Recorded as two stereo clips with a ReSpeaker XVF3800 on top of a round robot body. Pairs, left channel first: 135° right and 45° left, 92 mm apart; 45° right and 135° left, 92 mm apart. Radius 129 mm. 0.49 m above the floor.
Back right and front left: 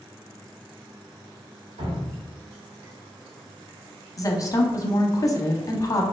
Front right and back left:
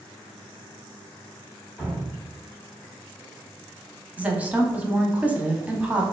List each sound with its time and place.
1.8 s dripping: 55° left, 1.7 m
4.2 s a woman speaking: 155° right, 0.8 m